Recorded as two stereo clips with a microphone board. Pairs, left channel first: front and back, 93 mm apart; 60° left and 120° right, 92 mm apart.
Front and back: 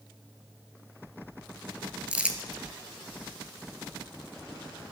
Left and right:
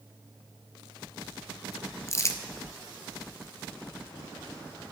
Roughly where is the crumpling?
Left.